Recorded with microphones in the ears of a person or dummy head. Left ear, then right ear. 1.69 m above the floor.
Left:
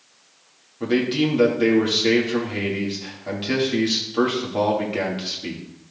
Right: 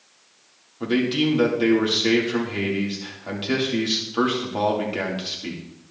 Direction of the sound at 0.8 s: 5° right (ahead or behind).